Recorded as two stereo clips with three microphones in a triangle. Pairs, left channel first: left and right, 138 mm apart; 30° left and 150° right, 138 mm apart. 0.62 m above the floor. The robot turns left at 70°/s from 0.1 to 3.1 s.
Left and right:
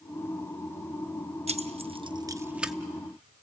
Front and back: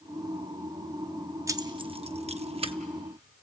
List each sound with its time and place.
1.5 s keys jangling: 90° right, 0.6 m; by 2.7 s straight behind, 0.6 m